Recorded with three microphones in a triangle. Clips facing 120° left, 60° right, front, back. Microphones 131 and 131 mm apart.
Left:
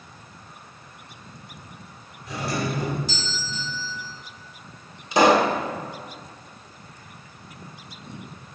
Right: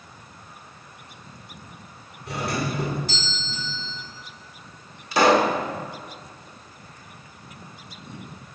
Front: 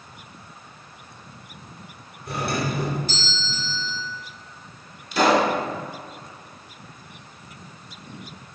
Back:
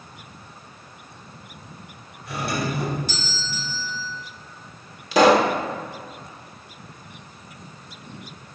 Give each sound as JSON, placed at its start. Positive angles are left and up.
{"t": 2.3, "sound": "a doorbell", "azimuth_deg": -30, "distance_m": 2.5}
{"t": 5.1, "sound": "a pop", "azimuth_deg": -170, "distance_m": 0.8}